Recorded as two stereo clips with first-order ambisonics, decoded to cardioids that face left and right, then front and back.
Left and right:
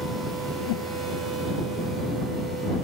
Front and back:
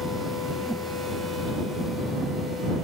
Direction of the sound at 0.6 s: 95° left.